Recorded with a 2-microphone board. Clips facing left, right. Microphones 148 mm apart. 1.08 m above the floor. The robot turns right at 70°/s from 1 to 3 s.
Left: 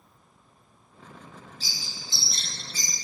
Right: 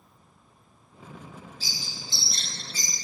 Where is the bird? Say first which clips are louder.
Right 2 dB; 10° right (ahead or behind), 1.3 m; by 3.0 s 65° left (ahead or behind), 1.3 m.